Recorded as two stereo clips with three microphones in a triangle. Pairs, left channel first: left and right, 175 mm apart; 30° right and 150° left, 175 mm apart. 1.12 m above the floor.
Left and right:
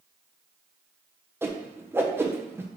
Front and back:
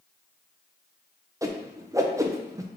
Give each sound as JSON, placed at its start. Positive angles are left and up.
{"t": 1.4, "sound": "a whoosh", "azimuth_deg": -155, "distance_m": 0.5}